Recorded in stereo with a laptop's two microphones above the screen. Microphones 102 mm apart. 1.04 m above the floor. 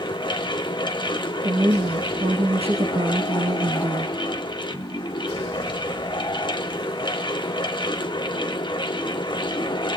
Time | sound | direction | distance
0.0 | a fan | 50° left (ahead or behind) | 0.9 m
1.4 | a woman speaking | 80° right | 1.5 m